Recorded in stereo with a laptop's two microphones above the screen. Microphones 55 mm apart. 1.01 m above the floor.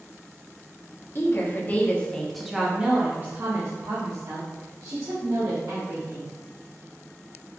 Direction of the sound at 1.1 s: 45° left (ahead or behind).